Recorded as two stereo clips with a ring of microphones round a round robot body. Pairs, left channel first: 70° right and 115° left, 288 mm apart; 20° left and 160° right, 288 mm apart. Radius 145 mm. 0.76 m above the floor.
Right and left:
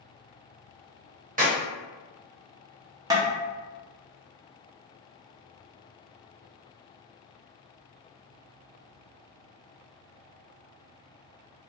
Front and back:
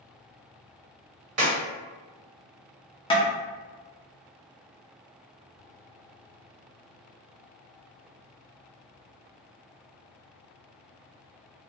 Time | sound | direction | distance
1.4 | a clap | 175° left | 1.1 m
3.1 | tapping | 60° left | 0.7 m